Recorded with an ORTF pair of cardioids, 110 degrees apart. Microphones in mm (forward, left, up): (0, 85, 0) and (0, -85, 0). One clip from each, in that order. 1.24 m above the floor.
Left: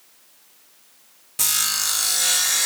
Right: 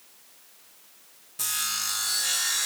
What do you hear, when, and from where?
1.4 s sawing: 45° left, 0.9 m